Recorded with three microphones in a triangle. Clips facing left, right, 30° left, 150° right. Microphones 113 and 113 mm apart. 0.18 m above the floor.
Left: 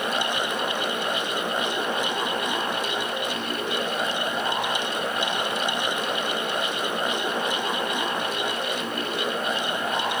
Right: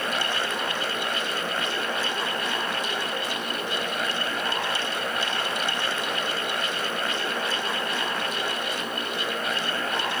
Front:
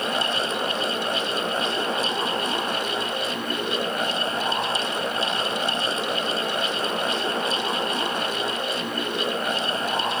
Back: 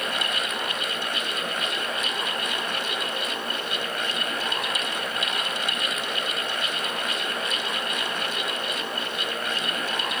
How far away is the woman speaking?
No woman speaking in this recording.